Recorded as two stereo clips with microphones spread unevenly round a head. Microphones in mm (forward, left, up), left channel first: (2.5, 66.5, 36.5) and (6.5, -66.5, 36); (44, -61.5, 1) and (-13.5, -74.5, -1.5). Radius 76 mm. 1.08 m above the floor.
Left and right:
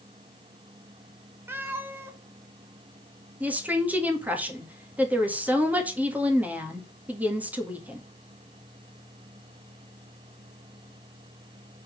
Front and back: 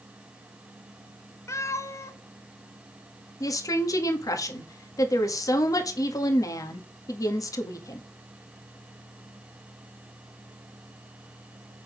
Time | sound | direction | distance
1.5 | a cat meowing | 15° right | 1.2 m
3.4 | a woman speaking | 10° right | 1.8 m